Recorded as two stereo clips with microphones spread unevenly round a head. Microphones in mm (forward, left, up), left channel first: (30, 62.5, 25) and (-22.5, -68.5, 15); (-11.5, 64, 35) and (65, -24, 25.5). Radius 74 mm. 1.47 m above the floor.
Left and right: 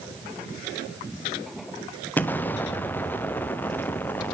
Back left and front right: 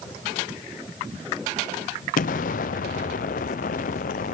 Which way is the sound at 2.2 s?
145° left.